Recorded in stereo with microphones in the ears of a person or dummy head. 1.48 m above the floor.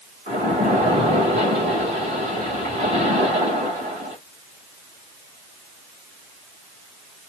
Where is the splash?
45° right (ahead or behind), 1.8 m.